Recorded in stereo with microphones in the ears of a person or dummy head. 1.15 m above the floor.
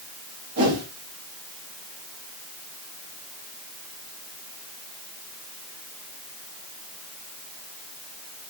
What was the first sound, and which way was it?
A whoosh, 85° right.